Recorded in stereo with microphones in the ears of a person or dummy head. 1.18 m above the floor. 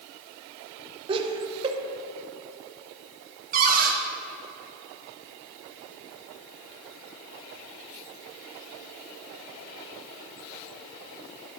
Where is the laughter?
30° right (ahead or behind), 0.8 m.